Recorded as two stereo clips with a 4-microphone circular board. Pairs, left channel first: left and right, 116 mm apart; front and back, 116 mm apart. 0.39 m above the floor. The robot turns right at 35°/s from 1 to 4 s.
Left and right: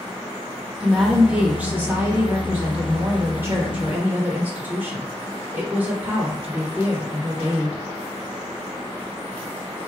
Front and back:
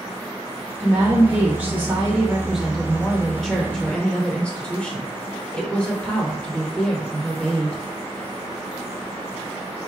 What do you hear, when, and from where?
0.8 s a woman speaking: 165° right, 0.9 m; by 7.8 s 60° right, 0.9 m